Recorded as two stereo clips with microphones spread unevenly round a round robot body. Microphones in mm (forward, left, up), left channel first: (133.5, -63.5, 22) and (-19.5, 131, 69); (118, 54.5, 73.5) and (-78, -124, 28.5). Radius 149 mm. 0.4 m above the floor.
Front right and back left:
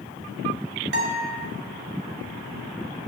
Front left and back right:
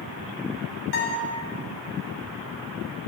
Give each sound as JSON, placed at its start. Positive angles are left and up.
{"t": 0.9, "sound": "a guitar", "azimuth_deg": 90, "distance_m": 2.5}